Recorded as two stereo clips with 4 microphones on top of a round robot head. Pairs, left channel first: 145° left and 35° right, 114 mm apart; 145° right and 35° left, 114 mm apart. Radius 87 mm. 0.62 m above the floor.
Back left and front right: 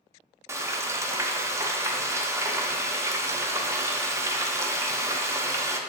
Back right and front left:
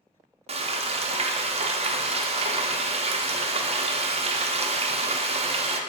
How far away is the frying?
About 0.6 m.